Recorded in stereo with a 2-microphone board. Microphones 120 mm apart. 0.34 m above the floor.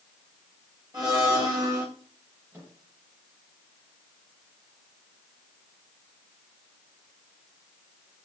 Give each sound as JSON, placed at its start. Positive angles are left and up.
{"t": 0.9, "sound": "a blender", "side_deg": -30, "distance_m": 8.0}
{"t": 2.5, "sound": "a microwave", "side_deg": -20, "distance_m": 8.5}